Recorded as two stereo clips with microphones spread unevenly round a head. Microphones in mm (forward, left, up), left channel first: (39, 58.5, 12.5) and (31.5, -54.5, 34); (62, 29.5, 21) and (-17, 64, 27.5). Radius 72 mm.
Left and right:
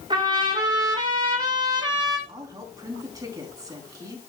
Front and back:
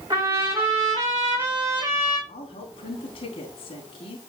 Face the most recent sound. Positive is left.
turn(degrees=-35)